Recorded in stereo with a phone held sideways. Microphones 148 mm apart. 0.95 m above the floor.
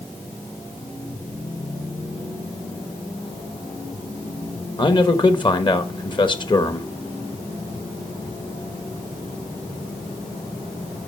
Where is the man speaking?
30° left (ahead or behind), 1.1 m.